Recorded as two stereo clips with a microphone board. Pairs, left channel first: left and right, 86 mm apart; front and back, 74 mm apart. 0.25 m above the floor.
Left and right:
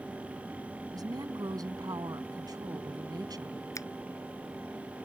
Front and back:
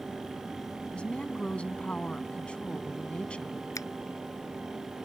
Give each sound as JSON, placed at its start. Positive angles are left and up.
{"t": 0.9, "sound": "a woman speaking", "azimuth_deg": -70}
{"t": 3.8, "sound": "a finger snap", "azimuth_deg": 40}